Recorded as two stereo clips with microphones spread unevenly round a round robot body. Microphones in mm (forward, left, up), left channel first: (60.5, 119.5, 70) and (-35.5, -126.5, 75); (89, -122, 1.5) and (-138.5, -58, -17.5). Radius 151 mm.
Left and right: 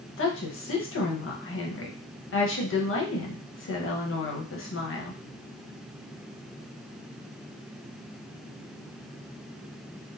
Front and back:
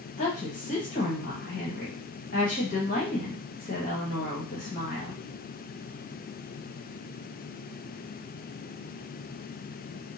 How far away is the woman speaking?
About 1.3 m.